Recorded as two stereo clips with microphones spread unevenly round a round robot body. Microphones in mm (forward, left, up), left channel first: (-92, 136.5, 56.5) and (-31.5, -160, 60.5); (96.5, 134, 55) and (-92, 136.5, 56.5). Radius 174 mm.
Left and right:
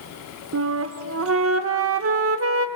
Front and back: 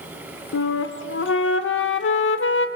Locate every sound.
0.5 s a flute: 30° right, 0.7 m